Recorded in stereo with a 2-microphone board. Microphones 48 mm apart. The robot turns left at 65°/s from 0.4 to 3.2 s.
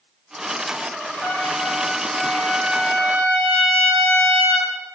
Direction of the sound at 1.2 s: 5° left (ahead or behind).